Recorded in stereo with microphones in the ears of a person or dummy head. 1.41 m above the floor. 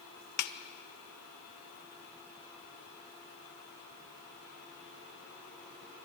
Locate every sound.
0.4 s a snare drum: 60° left (ahead or behind), 1.1 m